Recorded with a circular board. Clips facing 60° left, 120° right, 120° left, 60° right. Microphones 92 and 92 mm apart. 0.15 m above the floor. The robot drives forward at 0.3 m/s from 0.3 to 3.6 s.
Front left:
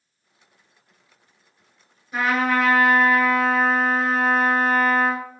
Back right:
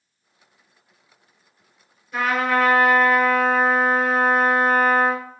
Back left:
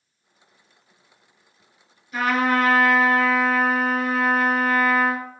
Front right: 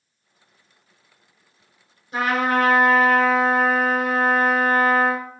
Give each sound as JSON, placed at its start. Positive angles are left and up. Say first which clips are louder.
{"t": 2.1, "sound": "a trumpet", "louder": "even, even", "azimuth_deg": -15, "distance_m": 1.2}